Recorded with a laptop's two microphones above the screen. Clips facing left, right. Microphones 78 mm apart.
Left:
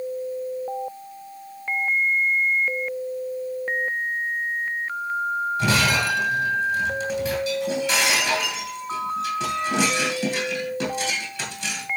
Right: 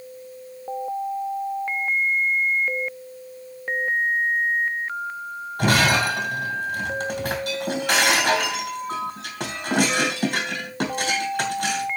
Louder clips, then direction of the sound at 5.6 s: Right 5 dB; 60° right (ahead or behind).